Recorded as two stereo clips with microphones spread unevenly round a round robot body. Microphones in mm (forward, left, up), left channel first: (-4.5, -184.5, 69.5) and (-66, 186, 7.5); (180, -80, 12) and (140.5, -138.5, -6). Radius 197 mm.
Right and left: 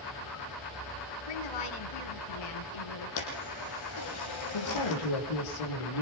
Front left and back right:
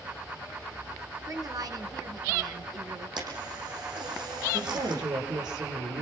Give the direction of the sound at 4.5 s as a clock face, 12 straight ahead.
4 o'clock.